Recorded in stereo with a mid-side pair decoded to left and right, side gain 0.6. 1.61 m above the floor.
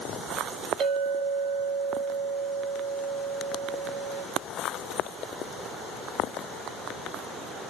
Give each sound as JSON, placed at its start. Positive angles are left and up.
{"t": 0.8, "sound": "a clink", "azimuth_deg": -50, "distance_m": 2.0}